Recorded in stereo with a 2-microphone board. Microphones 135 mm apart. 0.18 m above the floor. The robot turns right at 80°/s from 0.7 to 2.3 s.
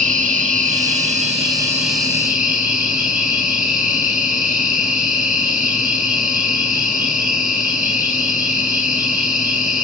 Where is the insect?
100° right, 5 m; by 9.9 s 25° left, 5 m.